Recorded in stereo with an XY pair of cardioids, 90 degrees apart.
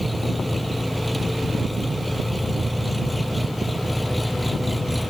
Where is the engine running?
5° left.